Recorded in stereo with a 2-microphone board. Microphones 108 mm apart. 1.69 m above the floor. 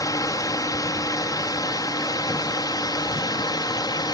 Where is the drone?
30° left (ahead or behind); by 4.1 s 35° left (ahead or behind).